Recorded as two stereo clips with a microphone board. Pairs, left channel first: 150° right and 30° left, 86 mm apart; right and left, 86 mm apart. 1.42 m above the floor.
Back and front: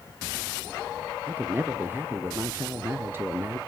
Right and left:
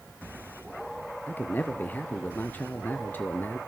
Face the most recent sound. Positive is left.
turn(degrees=-30)